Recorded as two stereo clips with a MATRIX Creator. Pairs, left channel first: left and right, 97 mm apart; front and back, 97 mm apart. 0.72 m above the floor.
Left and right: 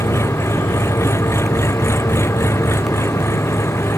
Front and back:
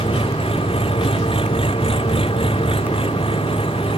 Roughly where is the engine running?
Ahead left.